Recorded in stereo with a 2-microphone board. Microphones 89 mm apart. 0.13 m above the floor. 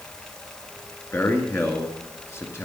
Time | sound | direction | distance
1.1 | a man speaking | 30° left (ahead or behind) | 1.8 m